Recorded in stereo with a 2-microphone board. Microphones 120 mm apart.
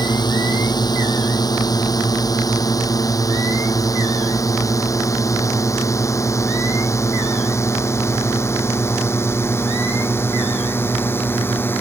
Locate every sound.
0.0 s a drone: 35° left (ahead or behind); by 11.8 s 20° left (ahead or behind)